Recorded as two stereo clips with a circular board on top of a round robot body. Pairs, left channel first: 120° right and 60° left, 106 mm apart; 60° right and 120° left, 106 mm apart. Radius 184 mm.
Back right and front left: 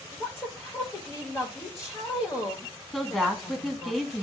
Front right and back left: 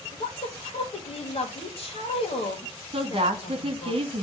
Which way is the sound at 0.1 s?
50° right.